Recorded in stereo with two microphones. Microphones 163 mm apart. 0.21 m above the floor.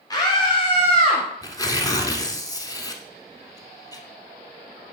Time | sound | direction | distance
0.1 | a scream | 20° left (ahead or behind) | 1.5 m
1.4 | tearing paper | 20° left (ahead or behind) | 0.9 m